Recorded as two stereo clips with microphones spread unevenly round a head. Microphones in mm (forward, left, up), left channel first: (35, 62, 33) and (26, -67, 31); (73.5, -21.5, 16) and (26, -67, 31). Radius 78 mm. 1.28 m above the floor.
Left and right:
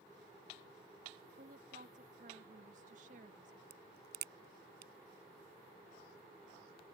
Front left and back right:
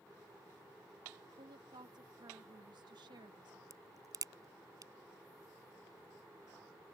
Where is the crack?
110° right.